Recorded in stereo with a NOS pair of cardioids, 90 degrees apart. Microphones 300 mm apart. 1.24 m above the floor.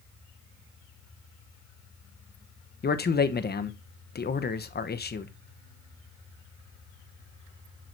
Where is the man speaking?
35° left, 1.0 m.